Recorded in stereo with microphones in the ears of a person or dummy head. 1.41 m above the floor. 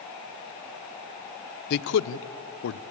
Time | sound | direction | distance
1.7 | a man speaking | 55° left (ahead or behind) | 0.8 m